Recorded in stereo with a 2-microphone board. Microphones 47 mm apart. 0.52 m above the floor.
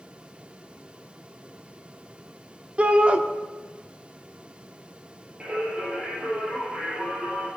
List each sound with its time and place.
2.8 s a shout: 25° right (ahead or behind), 0.8 m
5.4 s singing: 20° right (ahead or behind), 4 m